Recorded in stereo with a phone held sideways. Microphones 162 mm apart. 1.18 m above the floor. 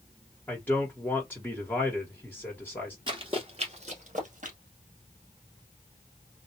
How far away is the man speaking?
About 1.4 m.